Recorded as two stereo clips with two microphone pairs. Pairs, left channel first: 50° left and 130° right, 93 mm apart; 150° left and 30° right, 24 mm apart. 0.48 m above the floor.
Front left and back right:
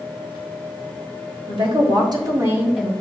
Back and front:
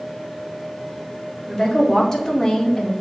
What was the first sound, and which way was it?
A woman speaking, 140° right.